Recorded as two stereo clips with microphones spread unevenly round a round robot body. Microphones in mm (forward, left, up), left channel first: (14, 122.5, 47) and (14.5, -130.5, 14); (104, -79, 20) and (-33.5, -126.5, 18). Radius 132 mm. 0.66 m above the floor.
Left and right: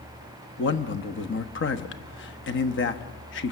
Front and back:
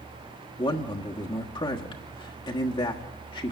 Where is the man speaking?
65° left, 1.2 m.